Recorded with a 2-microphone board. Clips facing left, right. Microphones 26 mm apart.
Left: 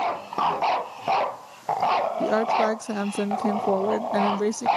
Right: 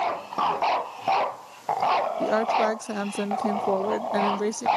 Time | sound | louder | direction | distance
2.2 | a woman speaking | left 1 dB | centre (ahead or behind) | ?